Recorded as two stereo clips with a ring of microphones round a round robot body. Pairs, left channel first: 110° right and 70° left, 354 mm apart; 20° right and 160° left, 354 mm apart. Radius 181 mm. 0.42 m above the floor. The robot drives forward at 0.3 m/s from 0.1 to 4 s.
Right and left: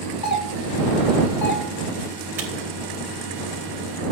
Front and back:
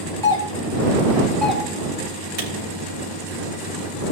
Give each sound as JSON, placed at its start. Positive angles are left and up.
{"t": 0.2, "sound": "a doorbell", "azimuth_deg": -95, "distance_m": 1.8}
{"t": 2.4, "sound": "a camera shutter", "azimuth_deg": 150, "distance_m": 4.0}